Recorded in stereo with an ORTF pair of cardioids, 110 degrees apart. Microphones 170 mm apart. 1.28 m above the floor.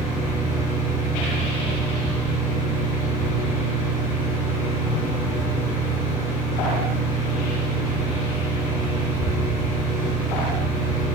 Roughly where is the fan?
Ahead.